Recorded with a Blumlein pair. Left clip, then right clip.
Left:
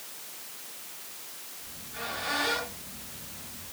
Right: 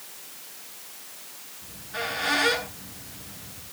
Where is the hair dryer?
I don't hear a hair dryer.